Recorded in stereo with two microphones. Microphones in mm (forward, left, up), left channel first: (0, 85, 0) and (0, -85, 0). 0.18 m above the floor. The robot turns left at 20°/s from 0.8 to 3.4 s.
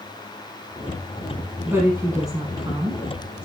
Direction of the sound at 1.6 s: 20° right.